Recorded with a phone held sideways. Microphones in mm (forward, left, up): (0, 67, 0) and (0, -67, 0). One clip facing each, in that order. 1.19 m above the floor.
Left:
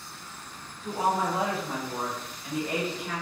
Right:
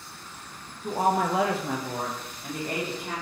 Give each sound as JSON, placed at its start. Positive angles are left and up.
{"t": 0.8, "sound": "a woman speaking", "side_deg": -40, "distance_m": 0.6}